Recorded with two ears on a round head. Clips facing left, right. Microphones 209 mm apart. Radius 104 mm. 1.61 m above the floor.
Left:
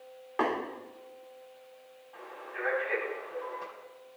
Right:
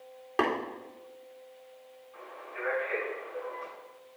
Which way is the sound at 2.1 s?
80° left.